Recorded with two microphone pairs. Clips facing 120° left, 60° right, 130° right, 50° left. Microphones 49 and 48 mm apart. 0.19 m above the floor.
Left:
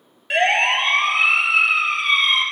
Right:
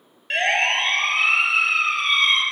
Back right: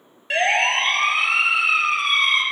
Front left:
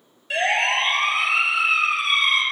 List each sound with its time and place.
0.3 s a siren: 160° right, 5.5 m